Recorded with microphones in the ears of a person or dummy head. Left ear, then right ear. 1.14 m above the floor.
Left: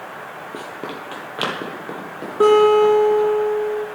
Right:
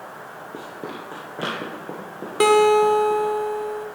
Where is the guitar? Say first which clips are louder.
Left 3 dB; 50° right (ahead or behind), 0.7 m.